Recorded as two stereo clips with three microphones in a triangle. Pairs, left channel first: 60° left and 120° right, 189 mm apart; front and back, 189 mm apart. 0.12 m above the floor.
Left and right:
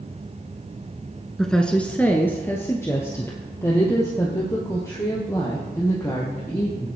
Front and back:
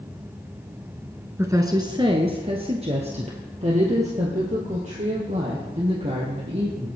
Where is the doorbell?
No doorbell in this recording.